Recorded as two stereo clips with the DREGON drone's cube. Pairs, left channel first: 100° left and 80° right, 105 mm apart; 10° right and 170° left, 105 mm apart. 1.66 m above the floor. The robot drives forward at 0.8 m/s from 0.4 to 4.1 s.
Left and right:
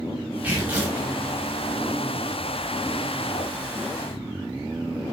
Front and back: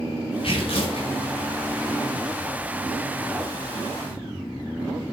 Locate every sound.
0.4 s tearing paper: 5° right, 3 m